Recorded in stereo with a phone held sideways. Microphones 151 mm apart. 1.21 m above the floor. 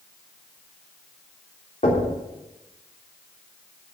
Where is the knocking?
50° left (ahead or behind), 3.5 m.